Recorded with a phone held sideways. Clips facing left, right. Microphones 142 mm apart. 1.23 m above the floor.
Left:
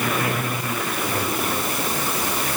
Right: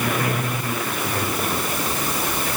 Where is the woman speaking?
No woman speaking in this recording.